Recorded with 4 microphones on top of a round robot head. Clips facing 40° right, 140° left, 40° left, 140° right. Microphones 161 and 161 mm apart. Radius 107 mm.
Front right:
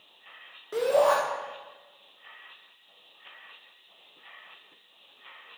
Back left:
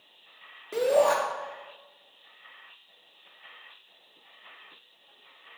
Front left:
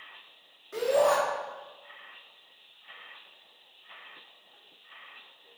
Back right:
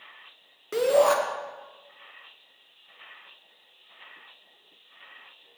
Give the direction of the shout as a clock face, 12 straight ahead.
5 o'clock.